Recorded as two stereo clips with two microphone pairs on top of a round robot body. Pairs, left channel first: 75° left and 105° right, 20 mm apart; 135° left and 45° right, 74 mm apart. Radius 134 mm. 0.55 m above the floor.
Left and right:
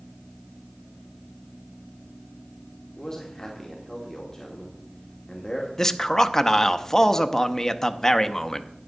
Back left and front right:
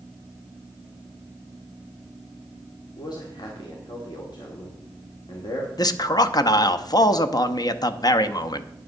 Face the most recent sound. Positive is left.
turn(degrees=130)